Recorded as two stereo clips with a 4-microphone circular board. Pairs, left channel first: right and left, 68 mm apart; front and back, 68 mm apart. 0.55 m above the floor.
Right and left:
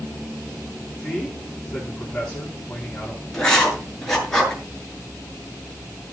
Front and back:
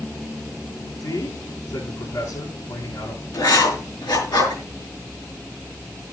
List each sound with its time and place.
1.0 s a man speaking: 10° right, 6 m
3.3 s writing: 10° right, 6 m